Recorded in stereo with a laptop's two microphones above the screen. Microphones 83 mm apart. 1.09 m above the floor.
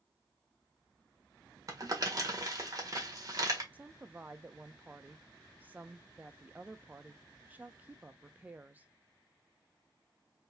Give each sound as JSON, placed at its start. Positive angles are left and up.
{"t": 1.7, "sound": "crumpling", "side_deg": -40, "distance_m": 1.3}
{"t": 3.7, "sound": "a woman speaking", "side_deg": -20, "distance_m": 0.6}